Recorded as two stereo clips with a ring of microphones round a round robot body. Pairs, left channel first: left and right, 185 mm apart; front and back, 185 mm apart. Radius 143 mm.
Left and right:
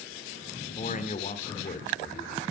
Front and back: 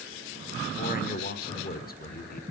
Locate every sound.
0.8 s a man speaking: 40° left, 1.6 m